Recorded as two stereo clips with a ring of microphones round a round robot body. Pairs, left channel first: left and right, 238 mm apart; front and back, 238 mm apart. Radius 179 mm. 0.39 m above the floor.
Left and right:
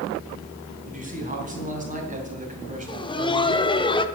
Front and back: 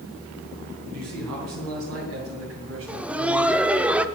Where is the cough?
No cough in this recording.